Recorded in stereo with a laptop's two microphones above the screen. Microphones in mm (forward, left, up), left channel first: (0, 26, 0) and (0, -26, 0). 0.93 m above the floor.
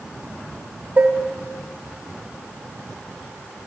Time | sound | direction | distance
1.0 | dishes clattering | 35° right (ahead or behind) | 0.7 m